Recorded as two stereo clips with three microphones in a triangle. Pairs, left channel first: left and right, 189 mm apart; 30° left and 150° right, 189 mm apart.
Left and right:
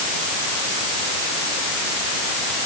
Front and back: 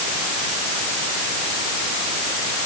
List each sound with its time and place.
Only background noise.